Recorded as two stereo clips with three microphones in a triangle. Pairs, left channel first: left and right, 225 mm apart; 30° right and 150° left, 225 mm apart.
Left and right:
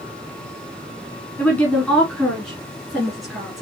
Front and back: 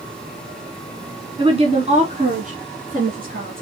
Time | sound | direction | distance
1.4 | a woman speaking | 160° left | 1.6 m